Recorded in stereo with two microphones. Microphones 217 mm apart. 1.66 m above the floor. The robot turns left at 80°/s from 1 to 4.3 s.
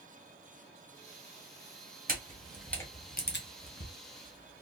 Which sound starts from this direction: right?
A camera shutter, at 2.1 s.